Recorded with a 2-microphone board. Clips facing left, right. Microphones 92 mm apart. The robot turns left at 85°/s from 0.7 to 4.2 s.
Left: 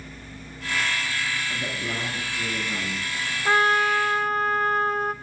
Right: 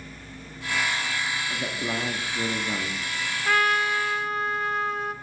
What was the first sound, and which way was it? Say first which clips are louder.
A man speaking: right 1 dB; 10° right.